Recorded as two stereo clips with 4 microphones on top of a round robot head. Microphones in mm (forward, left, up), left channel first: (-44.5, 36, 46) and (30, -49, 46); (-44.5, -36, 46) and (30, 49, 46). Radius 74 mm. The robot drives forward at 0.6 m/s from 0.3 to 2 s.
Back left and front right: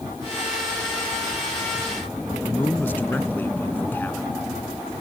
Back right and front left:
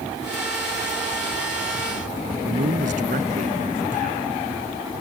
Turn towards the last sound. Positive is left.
turn(degrees=55)